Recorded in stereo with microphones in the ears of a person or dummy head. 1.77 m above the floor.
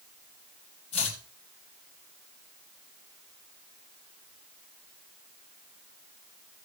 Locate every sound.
0.9 s chopping: 35° left (ahead or behind), 2.5 m